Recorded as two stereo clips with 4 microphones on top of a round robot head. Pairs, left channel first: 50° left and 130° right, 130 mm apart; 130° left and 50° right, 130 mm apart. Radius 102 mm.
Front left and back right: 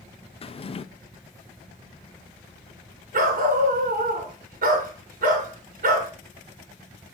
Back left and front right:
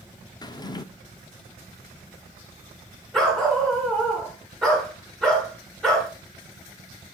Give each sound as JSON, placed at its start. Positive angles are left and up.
{"t": 0.4, "sound": "a drawer", "azimuth_deg": 80, "distance_m": 0.5}
{"t": 3.1, "sound": "a dog barking", "azimuth_deg": -145, "distance_m": 1.9}